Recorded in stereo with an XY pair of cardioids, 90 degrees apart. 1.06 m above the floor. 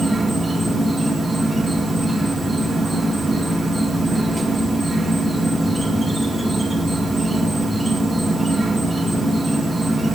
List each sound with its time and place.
0.0 s an insect: 15° right, 3.5 m